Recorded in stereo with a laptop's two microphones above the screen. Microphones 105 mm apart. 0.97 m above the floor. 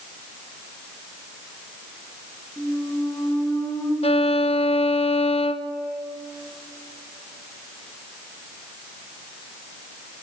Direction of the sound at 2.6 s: 30° left (ahead or behind).